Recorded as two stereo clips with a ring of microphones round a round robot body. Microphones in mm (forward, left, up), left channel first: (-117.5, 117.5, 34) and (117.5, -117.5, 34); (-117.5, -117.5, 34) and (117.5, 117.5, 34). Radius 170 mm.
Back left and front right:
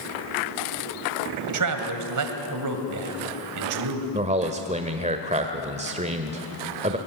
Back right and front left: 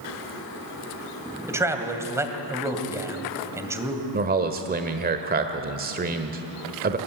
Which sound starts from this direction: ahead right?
A man speaking, at 1.5 s.